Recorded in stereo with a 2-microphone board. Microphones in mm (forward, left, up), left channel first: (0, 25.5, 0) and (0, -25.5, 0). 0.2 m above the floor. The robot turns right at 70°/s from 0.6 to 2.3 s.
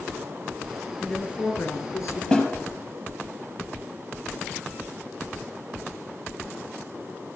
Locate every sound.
1.0 s a woman speaking: 5° left, 3 m; by 2.2 s 90° left, 3 m
2.3 s a snare drum: 15° left (ahead or behind), 5 m